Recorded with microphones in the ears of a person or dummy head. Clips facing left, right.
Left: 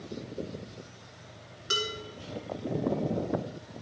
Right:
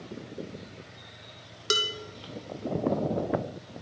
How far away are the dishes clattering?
About 1.2 m.